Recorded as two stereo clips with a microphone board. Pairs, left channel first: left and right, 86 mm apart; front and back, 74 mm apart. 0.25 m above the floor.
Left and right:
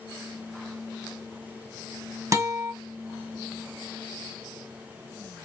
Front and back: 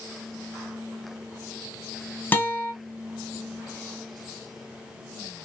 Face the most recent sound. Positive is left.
turn(degrees=-55)